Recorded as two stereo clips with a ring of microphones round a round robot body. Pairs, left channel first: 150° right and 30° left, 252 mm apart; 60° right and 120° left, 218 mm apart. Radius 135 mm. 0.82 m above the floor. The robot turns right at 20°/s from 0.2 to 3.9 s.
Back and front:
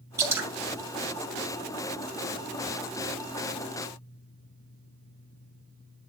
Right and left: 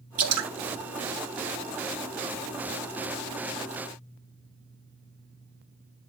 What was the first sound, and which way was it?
Dripping, 110° left.